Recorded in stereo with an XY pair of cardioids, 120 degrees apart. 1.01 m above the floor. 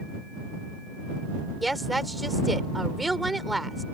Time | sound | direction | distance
1.6 | a woman speaking | 10° right | ?